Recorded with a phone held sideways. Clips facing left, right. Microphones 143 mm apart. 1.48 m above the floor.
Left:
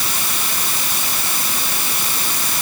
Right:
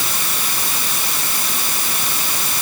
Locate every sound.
Only background noise.